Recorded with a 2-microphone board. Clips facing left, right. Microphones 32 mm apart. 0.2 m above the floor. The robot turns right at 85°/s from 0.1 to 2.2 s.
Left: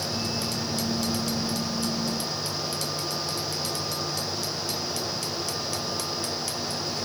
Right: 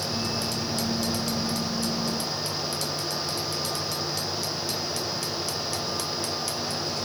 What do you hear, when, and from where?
Only background noise.